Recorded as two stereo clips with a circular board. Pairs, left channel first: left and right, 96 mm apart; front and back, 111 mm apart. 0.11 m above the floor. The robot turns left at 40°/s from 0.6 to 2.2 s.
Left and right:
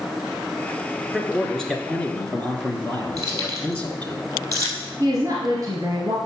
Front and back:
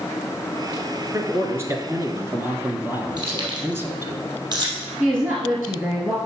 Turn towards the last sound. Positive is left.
turn(degrees=-120)